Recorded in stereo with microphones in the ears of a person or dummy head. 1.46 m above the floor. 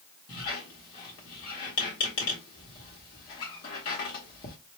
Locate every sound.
0.3 s a squeak: 25° left (ahead or behind), 1.0 m